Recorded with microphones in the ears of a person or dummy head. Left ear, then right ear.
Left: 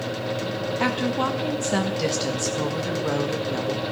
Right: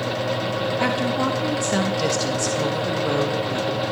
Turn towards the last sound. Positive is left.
turn(degrees=5)  # may be behind; listen again after turning